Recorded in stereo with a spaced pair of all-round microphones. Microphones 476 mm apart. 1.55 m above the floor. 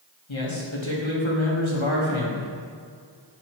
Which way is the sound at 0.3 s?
70° left (ahead or behind).